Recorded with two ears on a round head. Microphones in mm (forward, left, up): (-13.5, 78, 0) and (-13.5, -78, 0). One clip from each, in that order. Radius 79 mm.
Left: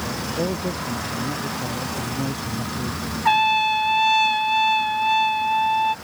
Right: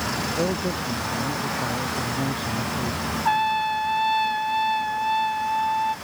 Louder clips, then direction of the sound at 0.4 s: Right 1 dB; 40° right (ahead or behind).